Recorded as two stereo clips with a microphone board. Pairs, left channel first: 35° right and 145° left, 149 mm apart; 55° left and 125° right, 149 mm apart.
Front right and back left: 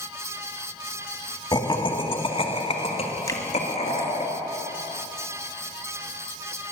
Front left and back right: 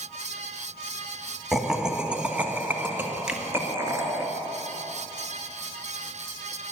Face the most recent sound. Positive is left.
turn(degrees=-45)